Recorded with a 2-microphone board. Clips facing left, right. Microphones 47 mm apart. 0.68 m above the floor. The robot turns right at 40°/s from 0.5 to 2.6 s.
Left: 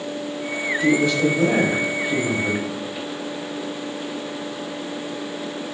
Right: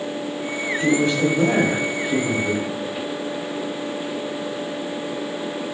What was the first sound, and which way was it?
A man speaking, 50° right.